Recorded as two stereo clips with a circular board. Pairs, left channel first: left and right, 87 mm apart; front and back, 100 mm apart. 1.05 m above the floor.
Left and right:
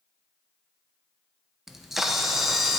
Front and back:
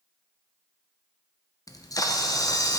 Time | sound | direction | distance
1.7 | a camera shutter | 5° right | 0.7 m